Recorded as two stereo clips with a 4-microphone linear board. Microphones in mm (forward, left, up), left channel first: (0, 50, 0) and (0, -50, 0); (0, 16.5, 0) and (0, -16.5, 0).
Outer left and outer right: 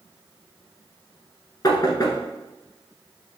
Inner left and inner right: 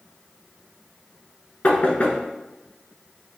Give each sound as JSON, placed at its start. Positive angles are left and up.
{"t": 1.6, "sound": "knocking", "side_deg": 40, "distance_m": 1.1}